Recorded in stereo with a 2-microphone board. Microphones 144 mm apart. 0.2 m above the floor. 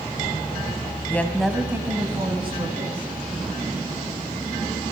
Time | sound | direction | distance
1.1 | a woman speaking | 15° left (ahead or behind) | 1.4 m